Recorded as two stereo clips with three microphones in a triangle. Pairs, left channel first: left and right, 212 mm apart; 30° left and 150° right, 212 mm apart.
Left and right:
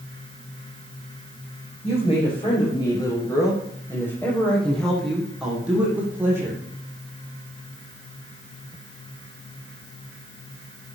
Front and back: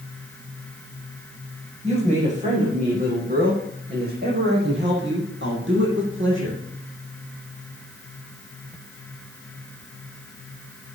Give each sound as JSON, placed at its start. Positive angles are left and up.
{"t": 1.8, "sound": "a woman speaking", "azimuth_deg": 150, "distance_m": 8.5}